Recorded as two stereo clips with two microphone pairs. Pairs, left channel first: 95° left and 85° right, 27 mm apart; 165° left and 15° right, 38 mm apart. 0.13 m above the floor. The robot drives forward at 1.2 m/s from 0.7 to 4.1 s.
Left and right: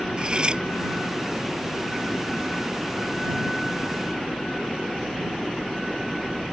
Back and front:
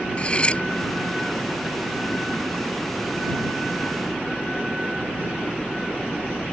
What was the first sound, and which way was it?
Cutlery clinking, 140° right.